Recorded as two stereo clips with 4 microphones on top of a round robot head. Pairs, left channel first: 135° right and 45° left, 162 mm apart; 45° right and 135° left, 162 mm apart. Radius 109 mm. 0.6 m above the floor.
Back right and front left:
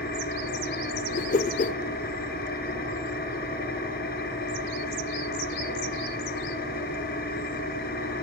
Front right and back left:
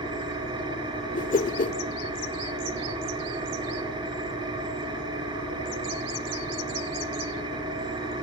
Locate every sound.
0.0 s an engine running: 165° right, 5 m
1.1 s a whoosh: 90° right, 0.7 m